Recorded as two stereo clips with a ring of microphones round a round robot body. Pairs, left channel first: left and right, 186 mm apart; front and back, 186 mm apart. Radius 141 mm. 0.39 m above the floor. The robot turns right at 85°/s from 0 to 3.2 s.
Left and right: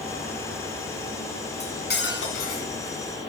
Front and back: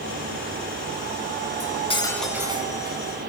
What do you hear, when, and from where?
1.6 s cutlery clinking: 35° left, 3 m; by 3.0 s 150° left, 3 m